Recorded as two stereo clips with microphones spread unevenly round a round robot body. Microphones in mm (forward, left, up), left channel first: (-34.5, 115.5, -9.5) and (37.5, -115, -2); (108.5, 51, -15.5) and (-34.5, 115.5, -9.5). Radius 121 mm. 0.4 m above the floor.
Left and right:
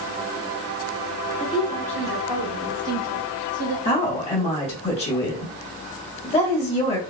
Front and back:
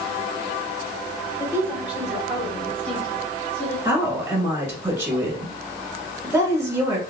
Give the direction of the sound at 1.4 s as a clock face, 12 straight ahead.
9 o'clock.